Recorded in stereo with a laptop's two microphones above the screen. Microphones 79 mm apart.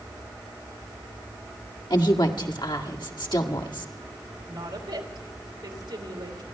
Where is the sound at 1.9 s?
70° left (ahead or behind), 1.9 m.